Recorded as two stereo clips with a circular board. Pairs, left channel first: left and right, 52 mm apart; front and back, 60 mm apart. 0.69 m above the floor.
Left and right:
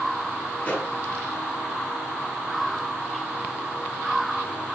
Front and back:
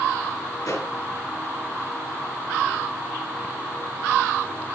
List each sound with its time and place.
0.6 s a pop: 25° left, 6.5 m